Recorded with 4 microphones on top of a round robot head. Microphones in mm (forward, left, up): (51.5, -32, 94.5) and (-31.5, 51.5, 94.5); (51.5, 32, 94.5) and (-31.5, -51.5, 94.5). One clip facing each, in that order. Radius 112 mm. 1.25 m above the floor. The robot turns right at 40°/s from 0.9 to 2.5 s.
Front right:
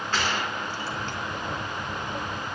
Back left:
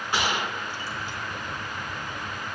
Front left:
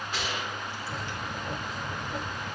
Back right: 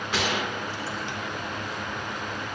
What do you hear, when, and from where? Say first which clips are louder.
0.1 s a gunshot: back left 1 dB, back right 8 dB; 150° right, 1.7 m; by 1.2 s 140° right, 1.7 m